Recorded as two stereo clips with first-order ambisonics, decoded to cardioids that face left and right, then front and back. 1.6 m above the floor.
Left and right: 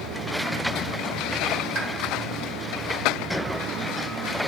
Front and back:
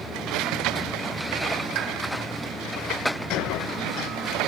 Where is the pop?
155° right, 1.8 m.